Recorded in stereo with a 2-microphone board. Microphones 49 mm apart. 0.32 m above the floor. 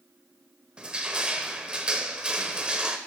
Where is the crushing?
20° right (ahead or behind), 0.8 m.